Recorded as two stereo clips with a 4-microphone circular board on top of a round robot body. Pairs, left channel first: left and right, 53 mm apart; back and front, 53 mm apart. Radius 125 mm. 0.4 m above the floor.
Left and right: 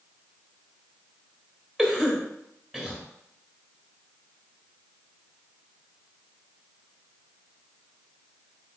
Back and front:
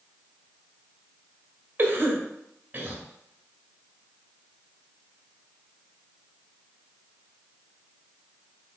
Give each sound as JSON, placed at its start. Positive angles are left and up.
{"t": 1.8, "sound": "a cough", "azimuth_deg": 5, "distance_m": 1.0}